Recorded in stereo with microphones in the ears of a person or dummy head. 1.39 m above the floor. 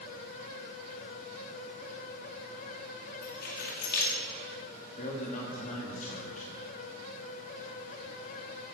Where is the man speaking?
40° left (ahead or behind), 2.5 m.